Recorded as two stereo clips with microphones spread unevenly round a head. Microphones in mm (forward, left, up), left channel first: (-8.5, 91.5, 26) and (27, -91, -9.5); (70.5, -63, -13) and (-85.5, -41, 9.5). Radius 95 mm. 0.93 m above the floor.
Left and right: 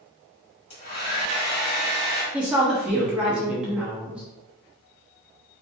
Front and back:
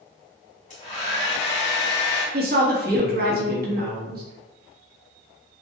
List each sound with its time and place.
0.7 s a hair dryer: 50° left, 2 m
2.3 s a woman speaking: 160° right, 1.4 m